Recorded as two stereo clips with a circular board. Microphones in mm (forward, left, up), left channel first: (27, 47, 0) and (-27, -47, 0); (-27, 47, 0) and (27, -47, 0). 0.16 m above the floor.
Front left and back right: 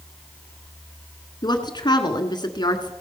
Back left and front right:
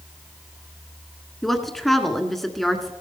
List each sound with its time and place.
1.4 s a woman speaking: 35° left, 1.4 m